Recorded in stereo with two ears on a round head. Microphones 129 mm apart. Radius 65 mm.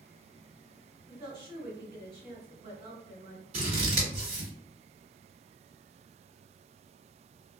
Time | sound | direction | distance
1.1 | a woman speaking | 30° right (ahead or behind) | 1.5 m
3.5 | scissors | 45° right (ahead or behind) | 1.9 m